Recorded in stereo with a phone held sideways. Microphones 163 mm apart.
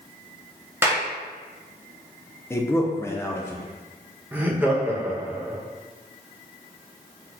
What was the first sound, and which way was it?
A clap, 15° right (ahead or behind).